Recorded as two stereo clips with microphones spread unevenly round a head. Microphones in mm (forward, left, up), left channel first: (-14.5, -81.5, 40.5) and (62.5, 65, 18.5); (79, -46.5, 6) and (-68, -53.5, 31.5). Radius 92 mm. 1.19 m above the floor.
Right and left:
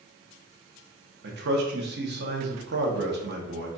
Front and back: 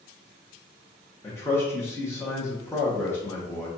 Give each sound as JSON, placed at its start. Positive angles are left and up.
{"t": 1.2, "sound": "a man speaking", "azimuth_deg": 75, "distance_m": 0.8}